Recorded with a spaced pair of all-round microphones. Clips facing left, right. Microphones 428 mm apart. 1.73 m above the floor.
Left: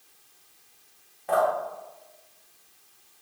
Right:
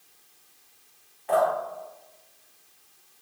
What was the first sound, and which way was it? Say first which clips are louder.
Dripping: right 1 dB; 55° left (ahead or behind).